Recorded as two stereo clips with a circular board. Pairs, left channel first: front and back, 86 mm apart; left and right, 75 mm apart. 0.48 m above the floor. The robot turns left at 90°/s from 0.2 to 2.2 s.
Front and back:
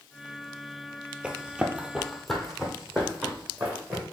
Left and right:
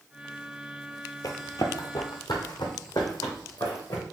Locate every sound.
1.2 s running footsteps: 105° left, 0.7 m; by 4.0 s 110° left, 2.5 m